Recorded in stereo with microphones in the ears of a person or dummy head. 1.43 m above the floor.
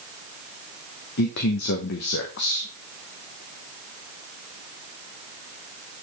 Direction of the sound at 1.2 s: 65° left (ahead or behind).